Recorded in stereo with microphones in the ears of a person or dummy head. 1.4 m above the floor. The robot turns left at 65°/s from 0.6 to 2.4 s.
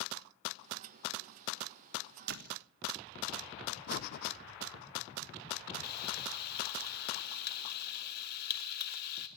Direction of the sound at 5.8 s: 55° left (ahead or behind).